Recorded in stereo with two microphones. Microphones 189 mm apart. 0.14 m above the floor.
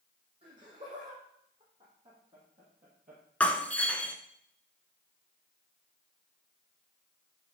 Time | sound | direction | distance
0.4 | laughter | 40° right (ahead or behind) | 5.5 m
3.4 | breaking glass | 10° left (ahead or behind) | 1.0 m